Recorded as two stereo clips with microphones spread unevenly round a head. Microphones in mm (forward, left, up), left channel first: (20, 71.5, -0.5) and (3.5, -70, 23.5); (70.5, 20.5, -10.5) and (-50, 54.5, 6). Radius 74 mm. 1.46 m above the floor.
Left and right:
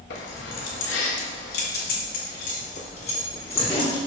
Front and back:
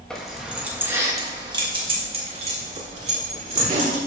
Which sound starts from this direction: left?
Keys jangling, at 0.1 s.